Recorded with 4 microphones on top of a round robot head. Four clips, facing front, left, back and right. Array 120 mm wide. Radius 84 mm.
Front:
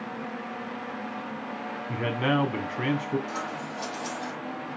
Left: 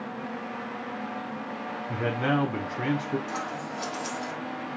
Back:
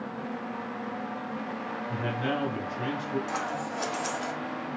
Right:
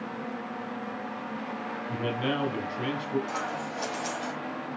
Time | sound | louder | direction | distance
1.9 | a man speaking | left 4 dB, front 5 dB | 35° left | 2.0 m
3.3 | scissors | right 1 dB, back 2 dB | straight behind | 3 m